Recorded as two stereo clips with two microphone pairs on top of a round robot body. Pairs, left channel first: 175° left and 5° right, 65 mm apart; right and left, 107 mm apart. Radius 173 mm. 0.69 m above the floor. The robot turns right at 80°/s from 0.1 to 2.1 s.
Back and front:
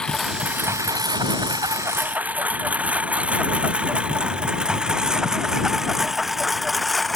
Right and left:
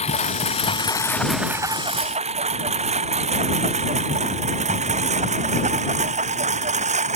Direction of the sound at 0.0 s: 105° right.